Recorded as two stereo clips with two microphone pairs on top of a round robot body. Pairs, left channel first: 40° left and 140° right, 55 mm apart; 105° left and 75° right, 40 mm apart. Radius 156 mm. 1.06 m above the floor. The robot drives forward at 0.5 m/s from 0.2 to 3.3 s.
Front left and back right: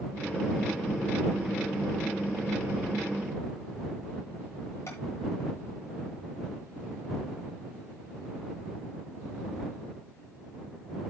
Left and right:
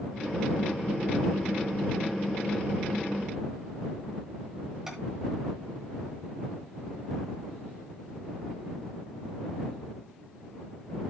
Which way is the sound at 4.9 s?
15° right.